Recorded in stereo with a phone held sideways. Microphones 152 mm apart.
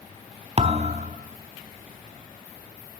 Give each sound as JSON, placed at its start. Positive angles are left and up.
{"t": 0.6, "sound": "a thud", "side_deg": -45, "distance_m": 0.6}